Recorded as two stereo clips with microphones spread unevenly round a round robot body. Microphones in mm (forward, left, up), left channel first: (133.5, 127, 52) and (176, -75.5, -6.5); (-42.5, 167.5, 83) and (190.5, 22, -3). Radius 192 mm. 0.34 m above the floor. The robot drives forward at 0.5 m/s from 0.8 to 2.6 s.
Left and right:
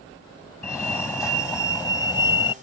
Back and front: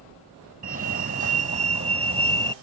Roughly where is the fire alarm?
Ahead.